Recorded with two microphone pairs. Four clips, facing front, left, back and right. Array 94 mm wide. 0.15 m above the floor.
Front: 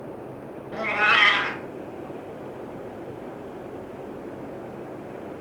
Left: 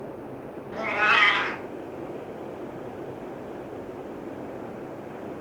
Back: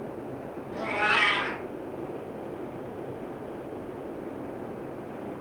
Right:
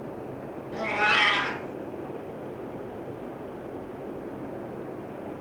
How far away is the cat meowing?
About 0.7 m.